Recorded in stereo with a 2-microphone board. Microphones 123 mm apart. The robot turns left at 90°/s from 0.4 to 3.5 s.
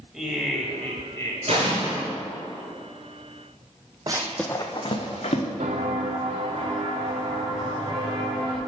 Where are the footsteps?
65° right (ahead or behind), 0.5 m; by 8.6 s 40° right (ahead or behind), 2.5 m.